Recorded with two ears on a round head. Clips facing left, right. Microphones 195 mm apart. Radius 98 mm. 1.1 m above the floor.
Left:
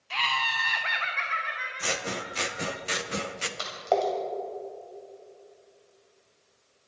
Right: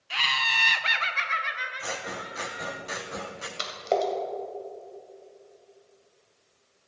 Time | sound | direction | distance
0.1 | laughter | 10° right (ahead or behind) | 0.6 m
1.8 | scissors | 35° left (ahead or behind) | 0.8 m
3.6 | a splash | 25° right (ahead or behind) | 2.5 m